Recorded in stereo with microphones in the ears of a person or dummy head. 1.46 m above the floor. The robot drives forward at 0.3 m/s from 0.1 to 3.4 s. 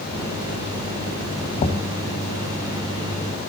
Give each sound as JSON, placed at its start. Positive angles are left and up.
{"t": 1.6, "sound": "knocking", "side_deg": 30, "distance_m": 0.8}